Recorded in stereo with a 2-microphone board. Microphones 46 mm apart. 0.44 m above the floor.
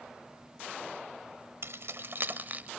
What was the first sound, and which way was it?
Keys jangling, 65° right (ahead or behind).